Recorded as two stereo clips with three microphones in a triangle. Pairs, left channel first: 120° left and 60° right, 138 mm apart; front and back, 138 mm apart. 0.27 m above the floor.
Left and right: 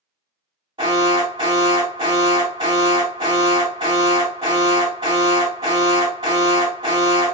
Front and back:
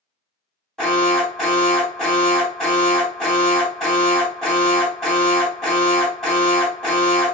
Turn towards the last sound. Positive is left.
turn(degrees=-90)